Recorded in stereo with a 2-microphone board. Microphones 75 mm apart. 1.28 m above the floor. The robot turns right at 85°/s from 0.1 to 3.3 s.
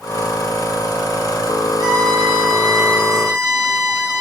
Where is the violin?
115° right, 6 m; by 4.2 s 10° left, 6 m.